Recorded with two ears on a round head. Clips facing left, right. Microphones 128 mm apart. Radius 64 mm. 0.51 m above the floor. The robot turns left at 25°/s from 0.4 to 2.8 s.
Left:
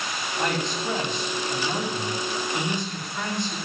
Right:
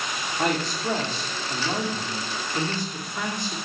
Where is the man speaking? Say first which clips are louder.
Right 1 dB; 105° right, 0.8 m; by 3.6 s 165° right, 0.8 m.